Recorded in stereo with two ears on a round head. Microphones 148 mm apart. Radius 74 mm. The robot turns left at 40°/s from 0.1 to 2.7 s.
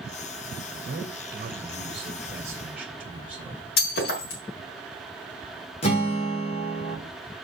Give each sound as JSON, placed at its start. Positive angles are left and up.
{"t": 0.9, "sound": "a man speaking", "azimuth_deg": -110, "distance_m": 2.0}
{"t": 3.8, "sound": "breaking glass", "side_deg": 65, "distance_m": 4.0}
{"t": 5.8, "sound": "a guitar", "side_deg": 40, "distance_m": 2.5}